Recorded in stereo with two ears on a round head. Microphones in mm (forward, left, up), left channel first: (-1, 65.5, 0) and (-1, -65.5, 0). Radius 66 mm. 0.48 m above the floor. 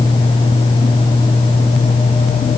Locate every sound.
Only background noise.